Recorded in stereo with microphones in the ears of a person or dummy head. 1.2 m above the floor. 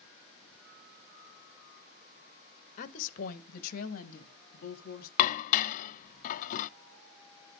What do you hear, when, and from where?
2.8 s a woman speaking: 50° left (ahead or behind), 1.3 m; by 5.1 s 55° left (ahead or behind), 2.5 m
5.2 s dishes clattering: 45° left (ahead or behind), 0.5 m